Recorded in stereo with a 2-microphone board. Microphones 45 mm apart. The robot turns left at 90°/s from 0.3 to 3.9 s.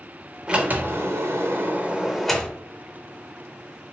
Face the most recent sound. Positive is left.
turn(degrees=30)